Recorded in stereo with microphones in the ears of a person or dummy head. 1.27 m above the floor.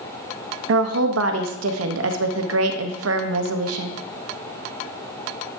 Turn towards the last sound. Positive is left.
turn(degrees=-80)